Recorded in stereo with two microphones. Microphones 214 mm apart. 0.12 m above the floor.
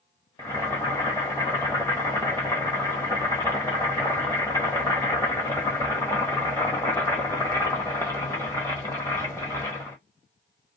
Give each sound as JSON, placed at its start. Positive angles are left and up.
{"t": 0.4, "sound": "boiling", "side_deg": 10, "distance_m": 1.0}